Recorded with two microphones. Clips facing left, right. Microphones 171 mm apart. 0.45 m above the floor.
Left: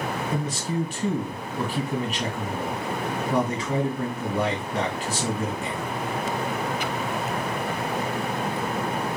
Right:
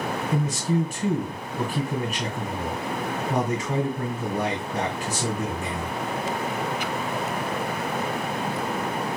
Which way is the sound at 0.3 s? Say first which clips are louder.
Right 6 dB; 45° right (ahead or behind).